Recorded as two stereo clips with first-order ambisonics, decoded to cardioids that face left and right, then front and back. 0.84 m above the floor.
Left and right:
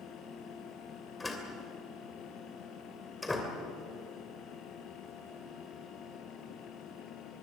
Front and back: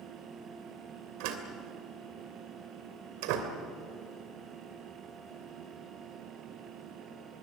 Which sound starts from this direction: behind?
A door slam, at 1.2 s.